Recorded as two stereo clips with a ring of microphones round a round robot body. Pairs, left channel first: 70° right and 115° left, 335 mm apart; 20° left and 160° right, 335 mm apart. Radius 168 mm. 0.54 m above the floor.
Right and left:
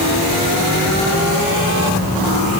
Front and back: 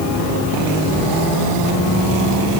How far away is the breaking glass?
I don't hear breaking glass.